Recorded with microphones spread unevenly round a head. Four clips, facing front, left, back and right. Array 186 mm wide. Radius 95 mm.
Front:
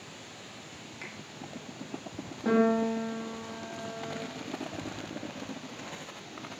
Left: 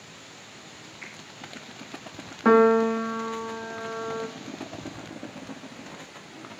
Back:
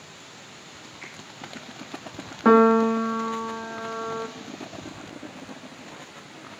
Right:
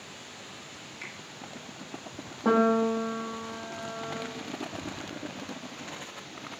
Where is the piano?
Straight behind, 0.7 m.